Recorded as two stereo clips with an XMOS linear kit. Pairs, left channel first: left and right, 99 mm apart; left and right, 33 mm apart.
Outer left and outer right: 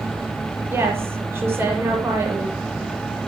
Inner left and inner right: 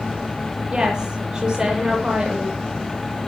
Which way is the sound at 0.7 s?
25° right (ahead or behind).